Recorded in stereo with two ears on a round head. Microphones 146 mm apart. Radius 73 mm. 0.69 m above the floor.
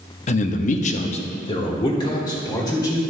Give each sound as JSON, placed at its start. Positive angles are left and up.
{"t": 0.3, "sound": "a man speaking", "side_deg": 40, "distance_m": 0.7}